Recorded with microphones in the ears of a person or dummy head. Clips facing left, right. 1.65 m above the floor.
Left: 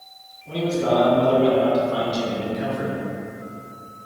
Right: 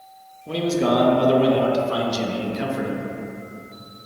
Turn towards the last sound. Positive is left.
turn(degrees=-60)  # may be behind; listen again after turning